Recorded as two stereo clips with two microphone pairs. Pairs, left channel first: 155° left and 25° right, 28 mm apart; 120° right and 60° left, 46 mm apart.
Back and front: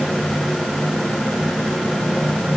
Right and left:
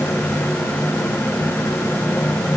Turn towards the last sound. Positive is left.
No sound to turn to.